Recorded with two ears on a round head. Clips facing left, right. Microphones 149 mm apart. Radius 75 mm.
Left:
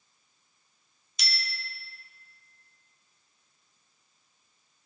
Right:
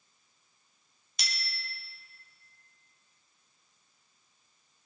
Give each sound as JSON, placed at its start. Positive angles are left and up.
{"t": 1.2, "sound": "a bicycle bell", "side_deg": -50, "distance_m": 3.0}